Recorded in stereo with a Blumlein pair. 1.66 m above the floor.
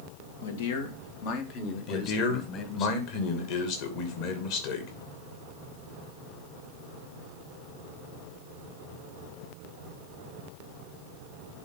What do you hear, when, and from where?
0.4 s a man speaking: 65° left, 1.4 m; by 2.9 s 30° left, 2 m
1.9 s a man speaking: 45° left, 2.5 m